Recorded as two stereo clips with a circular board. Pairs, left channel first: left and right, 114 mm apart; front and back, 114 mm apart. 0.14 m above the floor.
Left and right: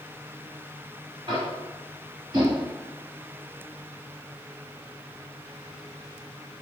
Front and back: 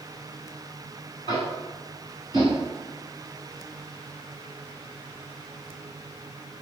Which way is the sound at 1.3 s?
140° right.